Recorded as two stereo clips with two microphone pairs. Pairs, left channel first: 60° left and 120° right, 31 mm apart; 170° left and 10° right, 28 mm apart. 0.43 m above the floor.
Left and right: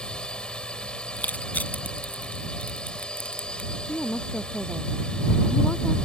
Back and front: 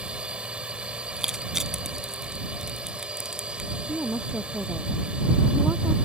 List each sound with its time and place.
0.0 s a drone: 15° left
1.2 s crushing: 60° left
3.9 s a woman speaking: 10° left